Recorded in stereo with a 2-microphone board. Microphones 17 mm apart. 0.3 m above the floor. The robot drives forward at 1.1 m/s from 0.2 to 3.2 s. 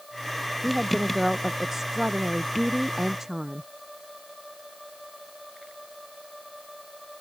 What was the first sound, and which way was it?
A woman speaking, 20° right (ahead or behind).